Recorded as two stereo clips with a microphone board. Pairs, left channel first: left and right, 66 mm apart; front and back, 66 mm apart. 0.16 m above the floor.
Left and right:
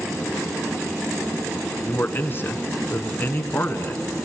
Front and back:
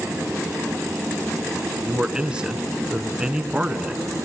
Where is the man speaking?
115° left, 1.7 m.